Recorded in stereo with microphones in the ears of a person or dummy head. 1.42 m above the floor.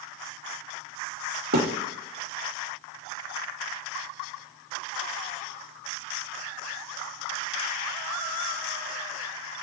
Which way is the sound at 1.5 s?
50° right (ahead or behind).